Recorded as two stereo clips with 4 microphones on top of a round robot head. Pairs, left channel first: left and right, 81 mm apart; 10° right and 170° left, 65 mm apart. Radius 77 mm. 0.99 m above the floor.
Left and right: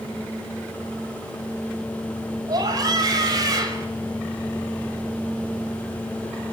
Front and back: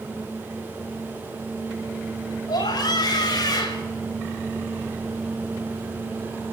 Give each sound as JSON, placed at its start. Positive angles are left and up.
{"t": 2.5, "sound": "a scream", "azimuth_deg": -40, "distance_m": 6.0}